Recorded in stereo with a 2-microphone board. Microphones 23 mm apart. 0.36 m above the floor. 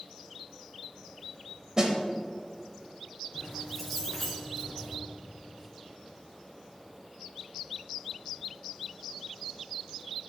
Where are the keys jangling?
10° left (ahead or behind), 3 m.